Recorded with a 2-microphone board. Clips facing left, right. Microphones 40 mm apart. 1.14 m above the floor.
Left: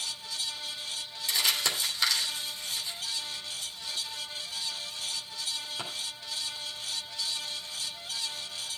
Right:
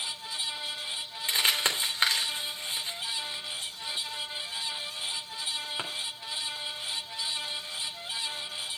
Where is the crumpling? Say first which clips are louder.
Right 2 dB; 35° right (ahead or behind), 3 m.